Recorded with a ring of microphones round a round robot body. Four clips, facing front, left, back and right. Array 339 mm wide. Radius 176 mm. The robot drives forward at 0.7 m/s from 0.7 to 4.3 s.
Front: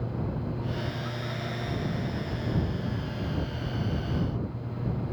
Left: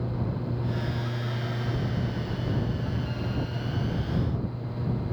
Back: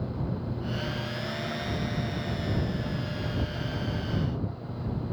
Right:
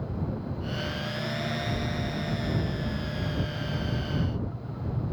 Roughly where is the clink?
No clink in this recording.